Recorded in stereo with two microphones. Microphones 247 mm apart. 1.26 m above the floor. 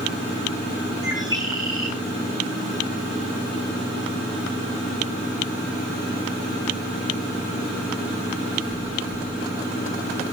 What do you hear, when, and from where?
1.0 s a bird: 15° right (ahead or behind), 7 m